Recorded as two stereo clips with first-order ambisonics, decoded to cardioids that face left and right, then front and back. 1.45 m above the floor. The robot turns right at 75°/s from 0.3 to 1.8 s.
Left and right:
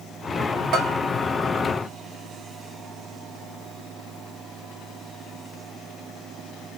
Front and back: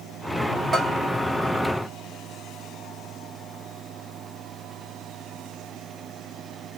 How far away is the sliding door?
I don't hear a sliding door.